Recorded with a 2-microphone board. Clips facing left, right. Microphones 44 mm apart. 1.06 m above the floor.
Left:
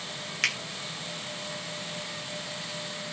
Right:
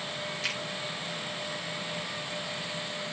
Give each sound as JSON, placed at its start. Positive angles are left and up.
{"t": 0.4, "sound": "a finger snap", "side_deg": 80, "distance_m": 3.0}